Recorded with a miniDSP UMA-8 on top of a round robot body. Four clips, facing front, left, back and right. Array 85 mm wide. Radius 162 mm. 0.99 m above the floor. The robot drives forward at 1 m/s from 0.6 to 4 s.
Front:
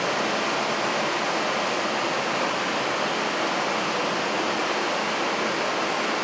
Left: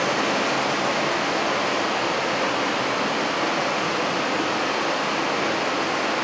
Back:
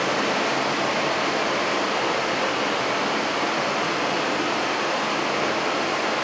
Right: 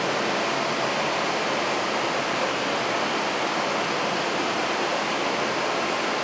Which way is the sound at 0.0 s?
125° left.